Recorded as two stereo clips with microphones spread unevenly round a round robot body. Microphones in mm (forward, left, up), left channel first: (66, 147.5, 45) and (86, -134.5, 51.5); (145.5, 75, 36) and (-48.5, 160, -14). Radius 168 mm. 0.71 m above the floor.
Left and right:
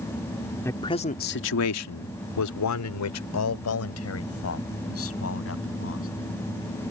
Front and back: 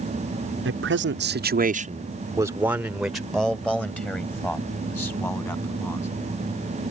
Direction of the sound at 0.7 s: 175° left.